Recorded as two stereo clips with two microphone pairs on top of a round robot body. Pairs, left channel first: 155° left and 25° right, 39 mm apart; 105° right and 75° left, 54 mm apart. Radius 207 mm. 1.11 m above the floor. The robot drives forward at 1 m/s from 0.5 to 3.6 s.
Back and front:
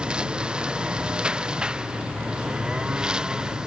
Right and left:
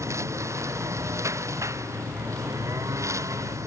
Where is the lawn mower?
40° left; by 3.7 s 45° left.